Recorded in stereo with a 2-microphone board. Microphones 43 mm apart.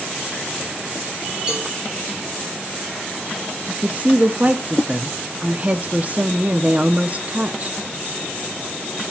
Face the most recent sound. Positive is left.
turn(degrees=-35)  # may be behind; listen again after turning